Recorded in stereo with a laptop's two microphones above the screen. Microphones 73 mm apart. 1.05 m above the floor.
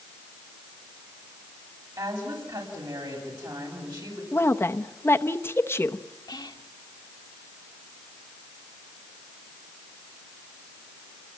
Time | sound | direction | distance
2.0 | a woman speaking | 80° right | 8 m
4.3 | a woman speaking | 30° left (ahead or behind) | 0.8 m
6.3 | whispering | 70° left (ahead or behind) | 1.3 m